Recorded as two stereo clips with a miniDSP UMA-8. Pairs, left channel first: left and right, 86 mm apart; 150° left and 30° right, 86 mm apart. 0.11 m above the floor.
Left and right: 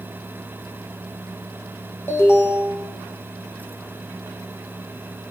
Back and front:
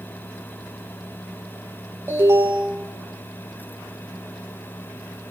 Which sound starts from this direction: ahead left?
An alarm, at 2.1 s.